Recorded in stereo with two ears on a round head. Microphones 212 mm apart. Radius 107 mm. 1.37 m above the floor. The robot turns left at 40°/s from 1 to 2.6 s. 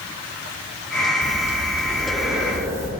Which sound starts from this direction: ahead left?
Breathing, at 1.2 s.